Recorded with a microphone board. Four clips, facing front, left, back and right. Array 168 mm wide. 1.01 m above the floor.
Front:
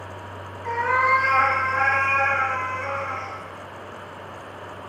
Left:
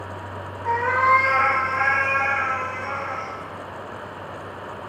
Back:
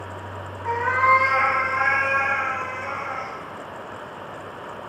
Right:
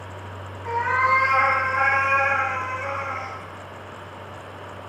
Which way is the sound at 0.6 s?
130° left.